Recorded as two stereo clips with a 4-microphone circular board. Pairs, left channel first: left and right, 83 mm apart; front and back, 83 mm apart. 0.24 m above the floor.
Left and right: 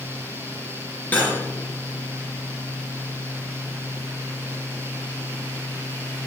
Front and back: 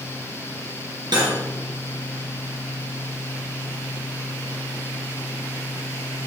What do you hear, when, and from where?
1.1 s cutlery clinking: 160° left, 2.5 m